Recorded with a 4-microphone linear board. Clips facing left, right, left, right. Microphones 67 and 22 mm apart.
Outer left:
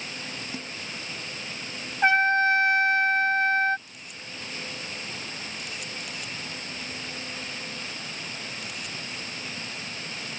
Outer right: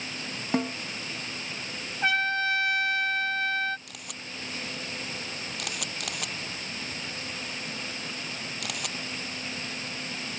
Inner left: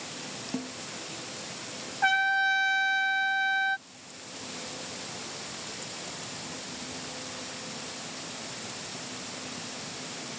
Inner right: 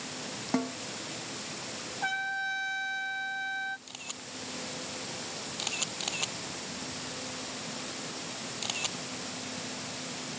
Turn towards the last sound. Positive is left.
turn(degrees=-80)